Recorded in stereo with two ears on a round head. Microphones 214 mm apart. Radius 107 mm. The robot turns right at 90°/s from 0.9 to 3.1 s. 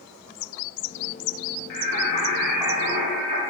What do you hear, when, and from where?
1.7 s singing: 105° left, 2 m; by 3.4 s 125° right, 2 m